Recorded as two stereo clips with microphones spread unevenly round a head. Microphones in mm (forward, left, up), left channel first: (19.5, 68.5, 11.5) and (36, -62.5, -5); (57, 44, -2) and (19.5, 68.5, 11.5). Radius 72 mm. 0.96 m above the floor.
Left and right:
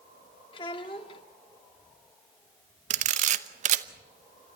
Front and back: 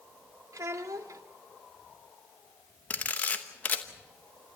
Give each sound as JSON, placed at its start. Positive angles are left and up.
{"t": 0.5, "sound": "a child speaking", "azimuth_deg": 160, "distance_m": 1.5}
{"t": 2.9, "sound": "a camera shutter", "azimuth_deg": -80, "distance_m": 0.8}